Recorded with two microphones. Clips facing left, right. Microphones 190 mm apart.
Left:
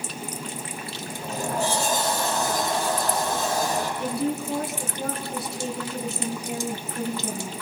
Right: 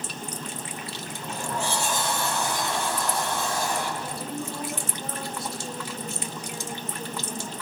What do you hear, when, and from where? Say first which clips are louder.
1.1 s a sliding door: left 5 dB; 35° left (ahead or behind), 8.5 m
4.0 s a woman speaking: left 7 dB; 65° left (ahead or behind), 5 m